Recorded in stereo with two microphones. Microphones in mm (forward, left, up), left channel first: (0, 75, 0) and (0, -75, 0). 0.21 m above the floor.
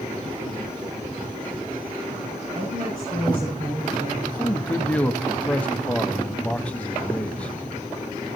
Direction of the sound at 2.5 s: 75° right (ahead or behind).